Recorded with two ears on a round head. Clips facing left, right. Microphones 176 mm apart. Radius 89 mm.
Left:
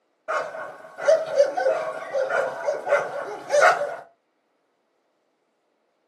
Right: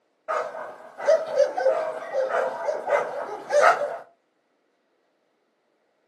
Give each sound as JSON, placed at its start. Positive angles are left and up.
{"t": 0.3, "sound": "a dog barking", "side_deg": 35, "distance_m": 0.6}